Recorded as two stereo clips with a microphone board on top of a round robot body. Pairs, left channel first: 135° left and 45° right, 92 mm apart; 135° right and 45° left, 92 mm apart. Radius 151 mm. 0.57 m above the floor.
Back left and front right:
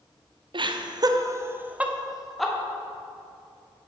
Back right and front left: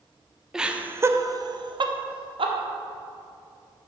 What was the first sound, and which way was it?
Laughter, 40° right.